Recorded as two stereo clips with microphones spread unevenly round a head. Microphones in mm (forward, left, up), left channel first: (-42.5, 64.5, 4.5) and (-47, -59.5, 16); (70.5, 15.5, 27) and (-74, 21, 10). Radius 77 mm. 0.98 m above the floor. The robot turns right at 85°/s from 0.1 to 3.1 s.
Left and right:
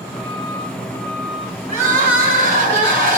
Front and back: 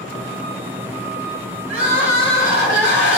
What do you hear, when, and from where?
1.7 s crying: 130° right, 5.5 m; by 3.2 s 10° right, 5.5 m